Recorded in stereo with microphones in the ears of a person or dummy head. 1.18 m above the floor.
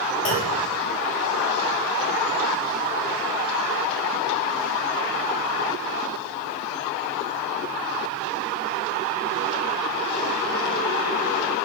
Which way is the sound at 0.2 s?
35° left (ahead or behind).